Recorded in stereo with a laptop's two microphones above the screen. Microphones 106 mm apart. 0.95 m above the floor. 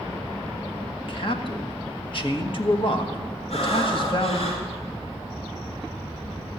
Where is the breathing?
70° left (ahead or behind), 3.5 m.